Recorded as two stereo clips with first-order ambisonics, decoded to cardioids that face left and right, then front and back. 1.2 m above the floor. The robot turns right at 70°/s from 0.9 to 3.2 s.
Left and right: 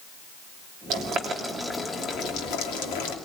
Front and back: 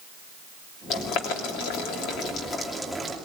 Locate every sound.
0.9 s boiling: 50° right, 2.5 m; by 3.1 s 110° left, 2.5 m